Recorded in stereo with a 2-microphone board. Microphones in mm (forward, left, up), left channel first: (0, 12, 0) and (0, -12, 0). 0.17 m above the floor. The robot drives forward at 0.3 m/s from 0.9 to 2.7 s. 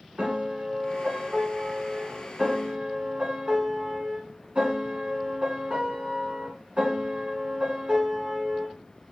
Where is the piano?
45° right (ahead or behind), 1.0 m.